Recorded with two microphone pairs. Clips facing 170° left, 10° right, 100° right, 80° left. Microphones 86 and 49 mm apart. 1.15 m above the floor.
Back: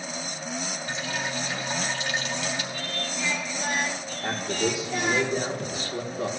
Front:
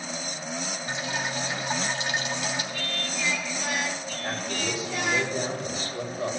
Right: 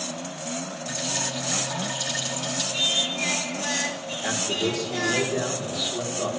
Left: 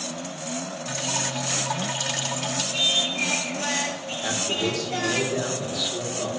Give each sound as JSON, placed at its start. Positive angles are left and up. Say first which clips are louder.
{"t": 0.9, "sound": "dripping", "louder": "front 1 dB, left 2 dB", "azimuth_deg": 65, "distance_m": 2.5}
{"t": 2.7, "sound": "singing", "louder": "even, left 2 dB", "azimuth_deg": 125, "distance_m": 2.5}
{"t": 4.2, "sound": "a man speaking", "louder": "back 5 dB, even", "azimuth_deg": 175, "distance_m": 2.5}